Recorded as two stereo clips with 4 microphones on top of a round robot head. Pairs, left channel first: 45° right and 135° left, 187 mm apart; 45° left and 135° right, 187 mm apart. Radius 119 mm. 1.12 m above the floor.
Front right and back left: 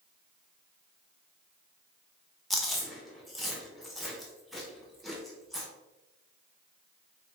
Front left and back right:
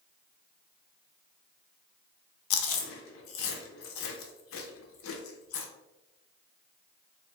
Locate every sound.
2.5 s chewing: 45° left, 0.5 m